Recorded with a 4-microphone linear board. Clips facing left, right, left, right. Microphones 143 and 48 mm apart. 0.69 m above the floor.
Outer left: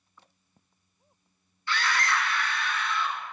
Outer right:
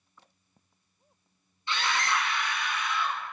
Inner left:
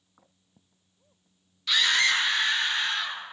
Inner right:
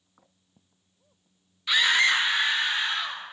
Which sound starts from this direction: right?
A scream, at 1.7 s.